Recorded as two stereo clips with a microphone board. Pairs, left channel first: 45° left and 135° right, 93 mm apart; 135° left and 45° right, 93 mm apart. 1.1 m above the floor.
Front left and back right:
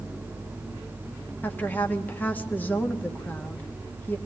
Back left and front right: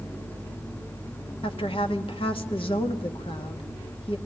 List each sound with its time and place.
1.4 s a woman speaking: 115° left, 1.7 m